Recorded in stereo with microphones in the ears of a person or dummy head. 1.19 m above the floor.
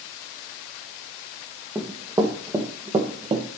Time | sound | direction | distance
1.8 | running footsteps | 15° right (ahead or behind) | 2.5 m